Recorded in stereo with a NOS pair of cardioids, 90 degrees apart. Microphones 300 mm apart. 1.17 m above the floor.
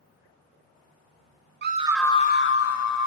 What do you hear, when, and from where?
1.6 s a scream: 35° right, 0.9 m; by 3.1 s 65° left, 1.6 m